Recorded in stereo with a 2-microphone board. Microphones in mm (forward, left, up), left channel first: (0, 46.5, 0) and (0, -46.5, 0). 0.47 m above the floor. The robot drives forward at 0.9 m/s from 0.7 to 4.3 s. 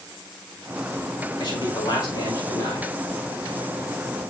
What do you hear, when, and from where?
1.4 s a man speaking: 60° left (ahead or behind), 5 m; by 2.9 s 50° left (ahead or behind), 6 m